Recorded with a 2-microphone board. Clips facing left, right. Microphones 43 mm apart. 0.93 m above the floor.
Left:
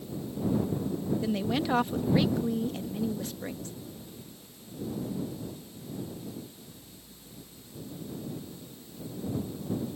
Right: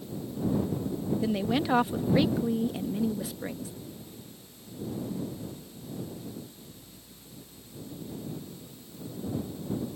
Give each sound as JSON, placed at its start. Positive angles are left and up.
{"t": 1.2, "sound": "a woman speaking", "side_deg": -5}